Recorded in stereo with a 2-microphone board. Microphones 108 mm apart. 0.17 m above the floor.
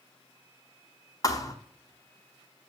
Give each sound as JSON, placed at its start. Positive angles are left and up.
{"t": 1.2, "sound": "a thud", "side_deg": 35, "distance_m": 0.8}